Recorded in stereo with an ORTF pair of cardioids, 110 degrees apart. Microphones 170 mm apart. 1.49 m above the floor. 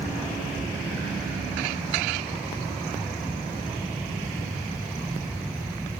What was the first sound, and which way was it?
A fan, 10° right.